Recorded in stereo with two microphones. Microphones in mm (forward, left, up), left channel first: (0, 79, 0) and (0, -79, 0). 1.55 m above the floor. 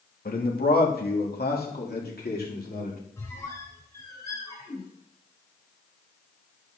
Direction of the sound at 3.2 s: 20° left (ahead or behind).